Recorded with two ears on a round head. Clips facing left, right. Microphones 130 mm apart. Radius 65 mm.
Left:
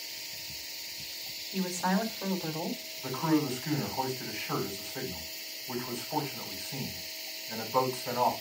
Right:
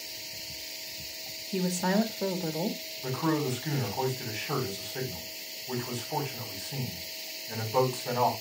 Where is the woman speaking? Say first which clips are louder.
Right 3 dB; 35° right (ahead or behind), 1.8 m.